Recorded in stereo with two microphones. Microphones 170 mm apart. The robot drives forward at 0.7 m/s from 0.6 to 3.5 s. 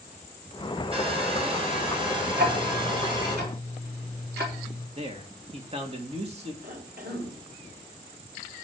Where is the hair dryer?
35° right (ahead or behind), 5 m; by 3.4 s 25° right (ahead or behind), 6.5 m.